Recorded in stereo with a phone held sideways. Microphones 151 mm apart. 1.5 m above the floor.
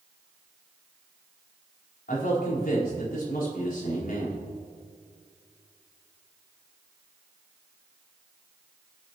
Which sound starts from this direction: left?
A man speaking, at 2.1 s.